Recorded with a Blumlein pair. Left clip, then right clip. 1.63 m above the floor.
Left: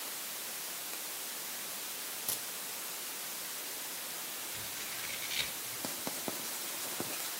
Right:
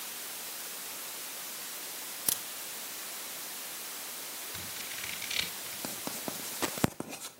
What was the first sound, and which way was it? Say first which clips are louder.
A crack: right 6 dB; 30° right.